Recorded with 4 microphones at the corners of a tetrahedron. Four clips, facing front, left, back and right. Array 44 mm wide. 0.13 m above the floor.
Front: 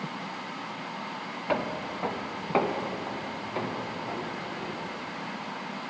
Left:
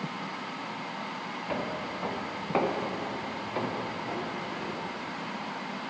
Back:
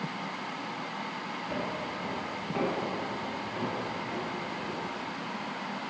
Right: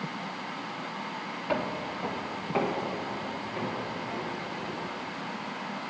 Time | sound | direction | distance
1.5 | footsteps | 15° right | 1.0 m